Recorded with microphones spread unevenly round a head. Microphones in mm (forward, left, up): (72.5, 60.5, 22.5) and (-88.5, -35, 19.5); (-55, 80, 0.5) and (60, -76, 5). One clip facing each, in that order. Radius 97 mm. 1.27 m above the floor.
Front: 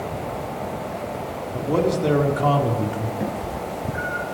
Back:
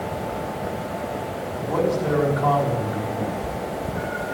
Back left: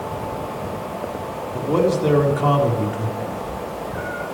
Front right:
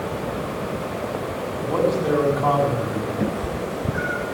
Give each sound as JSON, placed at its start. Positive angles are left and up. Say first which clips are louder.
{"t": 1.5, "sound": "a man speaking", "louder": "front 2 dB, back left 3 dB", "azimuth_deg": 80, "distance_m": 4.5}
{"t": 3.2, "sound": "a cat meowing", "louder": "even, front right 3 dB", "azimuth_deg": -50, "distance_m": 3.0}